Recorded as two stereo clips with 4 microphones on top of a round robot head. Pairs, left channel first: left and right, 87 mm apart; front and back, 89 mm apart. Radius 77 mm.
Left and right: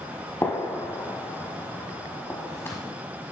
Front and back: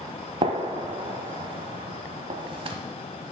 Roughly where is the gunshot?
Behind.